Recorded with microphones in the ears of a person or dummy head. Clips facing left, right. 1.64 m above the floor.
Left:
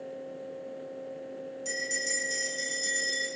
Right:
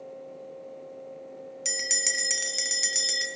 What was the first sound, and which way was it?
A bell, 80° right.